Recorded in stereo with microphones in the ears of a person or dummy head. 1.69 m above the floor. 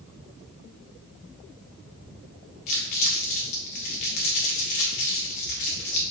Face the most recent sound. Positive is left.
turn(degrees=35)  # may be behind; listen again after turning